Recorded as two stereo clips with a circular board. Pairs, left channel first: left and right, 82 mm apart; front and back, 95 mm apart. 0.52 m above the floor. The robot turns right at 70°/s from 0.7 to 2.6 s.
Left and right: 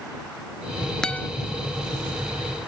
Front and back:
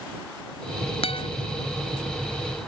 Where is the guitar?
5° left; by 1.3 s 25° left.